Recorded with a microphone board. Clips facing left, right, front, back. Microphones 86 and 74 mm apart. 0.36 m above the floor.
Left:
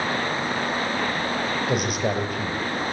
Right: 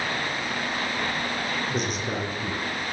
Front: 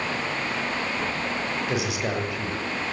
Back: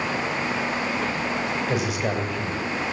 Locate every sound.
1.7 s a man speaking: 90° left, 9 m